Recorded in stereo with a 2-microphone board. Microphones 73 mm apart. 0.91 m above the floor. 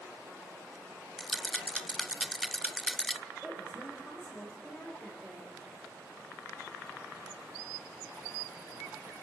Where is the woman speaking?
Centre (ahead or behind), 4 m.